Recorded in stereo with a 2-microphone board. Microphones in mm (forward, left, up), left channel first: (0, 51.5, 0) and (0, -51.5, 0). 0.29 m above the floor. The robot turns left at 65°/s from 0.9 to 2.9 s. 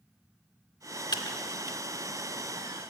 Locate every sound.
1.1 s typing on a keyboard: 45° left (ahead or behind), 0.9 m